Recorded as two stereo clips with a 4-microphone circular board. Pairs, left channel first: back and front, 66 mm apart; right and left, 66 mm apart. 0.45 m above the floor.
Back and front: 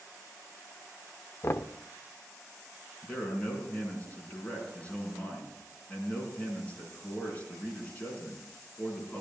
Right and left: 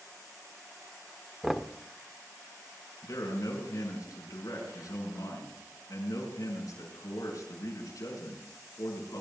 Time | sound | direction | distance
1.4 | knocking | straight behind | 0.5 m
3.0 | a man speaking | 115° right | 5.5 m